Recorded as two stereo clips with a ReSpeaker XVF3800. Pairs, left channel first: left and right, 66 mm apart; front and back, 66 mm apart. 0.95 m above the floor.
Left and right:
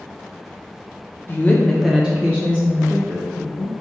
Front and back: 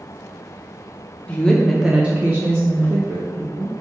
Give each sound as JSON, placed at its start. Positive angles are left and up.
{"t": 1.3, "sound": "a woman speaking", "azimuth_deg": 60, "distance_m": 0.7}